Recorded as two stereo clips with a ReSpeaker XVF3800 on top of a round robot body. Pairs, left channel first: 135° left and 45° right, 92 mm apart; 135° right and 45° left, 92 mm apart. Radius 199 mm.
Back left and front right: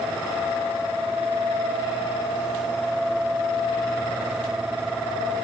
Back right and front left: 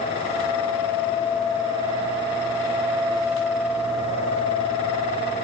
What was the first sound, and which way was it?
Only background noise.